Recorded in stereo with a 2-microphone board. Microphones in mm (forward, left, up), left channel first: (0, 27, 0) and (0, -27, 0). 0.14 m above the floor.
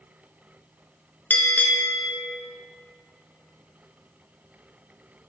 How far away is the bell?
About 0.8 m.